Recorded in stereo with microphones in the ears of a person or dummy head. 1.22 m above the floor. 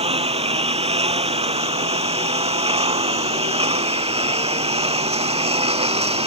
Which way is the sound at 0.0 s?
30° right (ahead or behind).